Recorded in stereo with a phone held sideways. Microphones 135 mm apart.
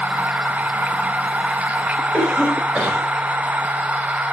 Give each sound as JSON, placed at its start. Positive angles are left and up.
{"t": 0.0, "sound": "a machine running", "side_deg": -10, "distance_m": 0.7}
{"t": 2.1, "sound": "a cough", "side_deg": -5, "distance_m": 5.5}